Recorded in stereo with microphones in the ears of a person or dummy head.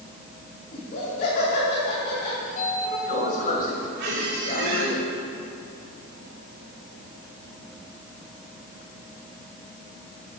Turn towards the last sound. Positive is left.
turn(degrees=-65)  # may be behind; listen again after turning